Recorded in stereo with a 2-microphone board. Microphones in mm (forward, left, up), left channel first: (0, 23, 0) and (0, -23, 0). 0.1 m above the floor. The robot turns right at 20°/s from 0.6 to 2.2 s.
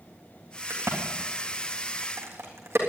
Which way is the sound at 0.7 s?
65° right (ahead or behind).